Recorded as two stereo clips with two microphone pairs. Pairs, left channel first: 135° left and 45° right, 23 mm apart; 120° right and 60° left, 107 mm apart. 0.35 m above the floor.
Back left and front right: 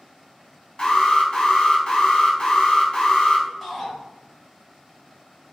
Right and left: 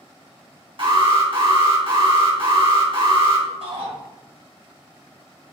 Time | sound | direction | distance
0.8 | an alarm | 85° left | 2.5 m
3.6 | a shout | 45° left | 3 m